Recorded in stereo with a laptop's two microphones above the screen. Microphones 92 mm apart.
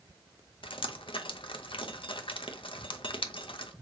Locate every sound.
0.6 s dripping: 80° left, 0.7 m